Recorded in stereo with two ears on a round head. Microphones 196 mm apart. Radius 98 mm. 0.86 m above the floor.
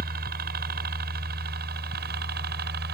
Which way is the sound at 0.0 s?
45° right (ahead or behind).